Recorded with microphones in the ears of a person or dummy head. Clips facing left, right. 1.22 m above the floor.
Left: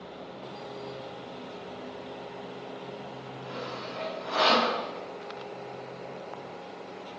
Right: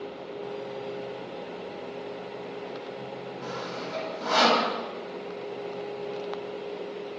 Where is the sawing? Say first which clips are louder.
Right 1 dB; 85° right, 8.5 m.